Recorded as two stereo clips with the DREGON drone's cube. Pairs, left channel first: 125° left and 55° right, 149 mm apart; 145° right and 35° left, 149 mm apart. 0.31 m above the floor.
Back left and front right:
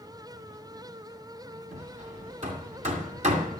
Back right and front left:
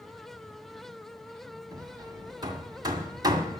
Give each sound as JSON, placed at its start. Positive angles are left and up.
{"t": 1.7, "sound": "hammering", "azimuth_deg": -25, "distance_m": 1.9}